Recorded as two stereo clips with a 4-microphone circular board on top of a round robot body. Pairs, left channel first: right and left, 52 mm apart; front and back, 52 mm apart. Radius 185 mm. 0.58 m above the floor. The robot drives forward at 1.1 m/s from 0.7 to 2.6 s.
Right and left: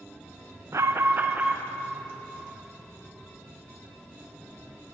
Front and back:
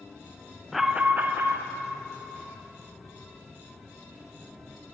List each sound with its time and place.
0.7 s an alarm: 90° left, 0.6 m; by 1.6 s 150° left, 1.2 m